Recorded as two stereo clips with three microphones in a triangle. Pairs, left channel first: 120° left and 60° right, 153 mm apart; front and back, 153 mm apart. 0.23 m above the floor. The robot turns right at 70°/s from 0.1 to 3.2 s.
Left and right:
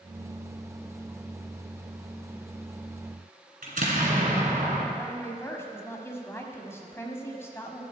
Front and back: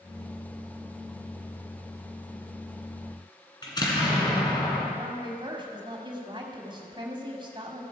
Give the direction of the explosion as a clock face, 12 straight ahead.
2 o'clock.